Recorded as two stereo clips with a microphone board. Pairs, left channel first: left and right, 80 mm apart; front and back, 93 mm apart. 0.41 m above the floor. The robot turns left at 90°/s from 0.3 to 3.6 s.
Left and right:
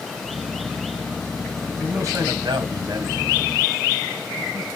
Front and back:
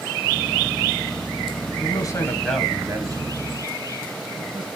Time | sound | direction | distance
1.7 | a man speaking | 15° right | 2.5 m